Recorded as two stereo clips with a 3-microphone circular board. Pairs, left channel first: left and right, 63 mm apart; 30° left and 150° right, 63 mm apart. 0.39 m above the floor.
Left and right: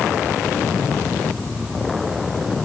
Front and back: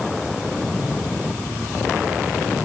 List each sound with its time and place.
Only background noise.